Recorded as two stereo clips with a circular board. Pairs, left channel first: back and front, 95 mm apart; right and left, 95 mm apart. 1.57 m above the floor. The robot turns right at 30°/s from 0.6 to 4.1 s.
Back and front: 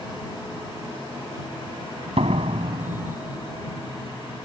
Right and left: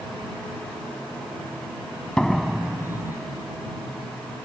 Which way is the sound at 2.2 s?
5° right.